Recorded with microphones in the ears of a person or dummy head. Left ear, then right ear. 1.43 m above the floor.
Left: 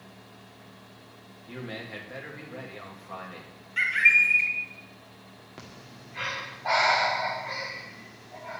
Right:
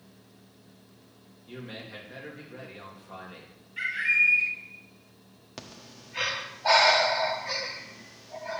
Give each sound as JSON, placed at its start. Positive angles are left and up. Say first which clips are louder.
{"t": 1.5, "sound": "a man speaking", "louder": "left 3 dB", "side_deg": 15, "distance_m": 2.5}
{"t": 3.8, "sound": "a bird", "louder": "left 4 dB", "side_deg": 50, "distance_m": 2.0}
{"t": 5.6, "sound": "breathing", "louder": "right 3 dB", "side_deg": -75, "distance_m": 1.5}